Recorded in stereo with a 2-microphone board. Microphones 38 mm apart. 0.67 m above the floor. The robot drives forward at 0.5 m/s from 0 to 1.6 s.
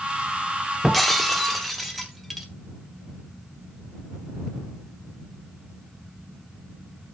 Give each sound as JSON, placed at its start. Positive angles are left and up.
{"t": 0.8, "sound": "breaking glass", "side_deg": 0, "distance_m": 0.8}